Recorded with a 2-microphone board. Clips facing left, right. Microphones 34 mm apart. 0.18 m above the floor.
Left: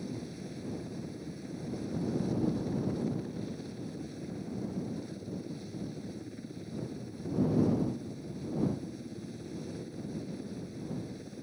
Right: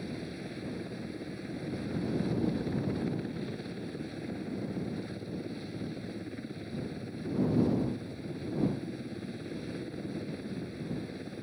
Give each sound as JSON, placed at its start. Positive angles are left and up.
{"t": 0.0, "sound": "a helicopter", "side_deg": -35}